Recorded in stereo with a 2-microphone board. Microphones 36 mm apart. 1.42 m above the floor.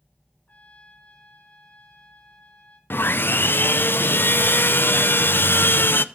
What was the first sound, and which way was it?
A trumpet, 40° left (ahead or behind).